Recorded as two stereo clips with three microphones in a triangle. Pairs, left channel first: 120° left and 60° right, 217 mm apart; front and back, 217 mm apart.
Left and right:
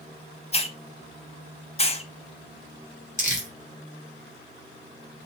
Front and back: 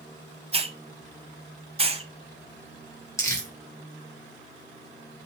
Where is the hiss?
150° left, 0.6 m.